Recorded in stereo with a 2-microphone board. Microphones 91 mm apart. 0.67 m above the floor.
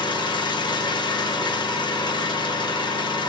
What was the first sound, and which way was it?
An engine running, 50° left (ahead or behind).